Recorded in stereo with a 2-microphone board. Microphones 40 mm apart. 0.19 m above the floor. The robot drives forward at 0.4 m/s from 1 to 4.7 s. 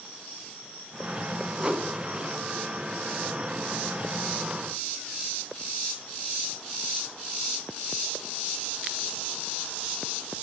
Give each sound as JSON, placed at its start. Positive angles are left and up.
{"t": 1.6, "sound": "a whoosh", "side_deg": -20, "distance_m": 2.5}